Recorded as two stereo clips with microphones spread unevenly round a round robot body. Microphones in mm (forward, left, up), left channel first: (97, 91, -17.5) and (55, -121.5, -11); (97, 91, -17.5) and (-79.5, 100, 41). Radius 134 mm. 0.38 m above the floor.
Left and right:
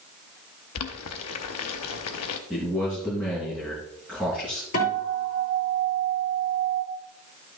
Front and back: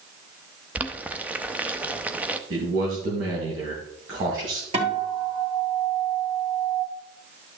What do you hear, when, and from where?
0.8 s boiling: 90° left, 0.8 m
2.5 s a man speaking: 175° left, 2.5 m
4.7 s a guitar: 120° left, 3 m